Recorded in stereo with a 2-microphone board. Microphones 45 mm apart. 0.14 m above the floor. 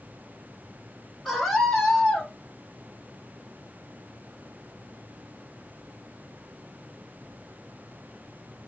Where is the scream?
10° left (ahead or behind), 5 m.